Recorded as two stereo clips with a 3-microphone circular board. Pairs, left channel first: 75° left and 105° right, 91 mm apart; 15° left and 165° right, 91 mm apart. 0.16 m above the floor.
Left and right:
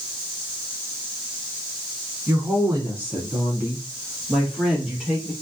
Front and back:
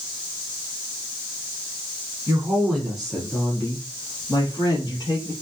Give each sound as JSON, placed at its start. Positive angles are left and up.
{"t": 2.3, "sound": "a woman speaking", "azimuth_deg": -130, "distance_m": 1.3}